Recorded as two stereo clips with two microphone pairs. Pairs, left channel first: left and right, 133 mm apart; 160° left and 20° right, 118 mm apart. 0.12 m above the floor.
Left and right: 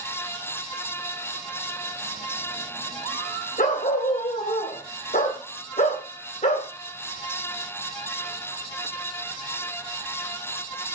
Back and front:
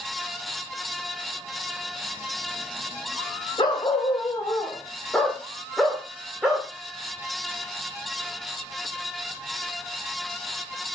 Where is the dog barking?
110° left, 2 m; by 6.7 s 65° left, 2.5 m.